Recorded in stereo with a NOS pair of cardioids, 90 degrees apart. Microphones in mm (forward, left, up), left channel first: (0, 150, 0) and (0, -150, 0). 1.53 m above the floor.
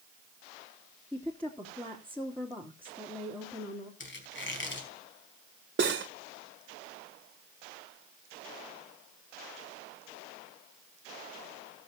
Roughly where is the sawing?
No sawing in this recording.